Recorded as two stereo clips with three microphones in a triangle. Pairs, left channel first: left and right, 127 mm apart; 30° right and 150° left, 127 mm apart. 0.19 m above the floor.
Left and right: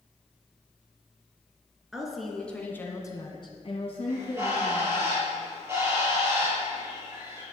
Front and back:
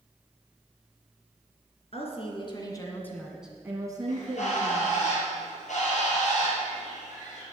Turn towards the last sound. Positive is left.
turn(degrees=-20)